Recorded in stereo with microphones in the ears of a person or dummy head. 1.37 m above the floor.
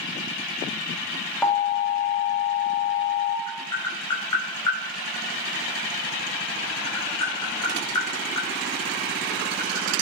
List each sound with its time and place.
1.4 s an alarm: centre (ahead or behind), 0.6 m
3.5 s tapping: 20° left (ahead or behind), 0.7 m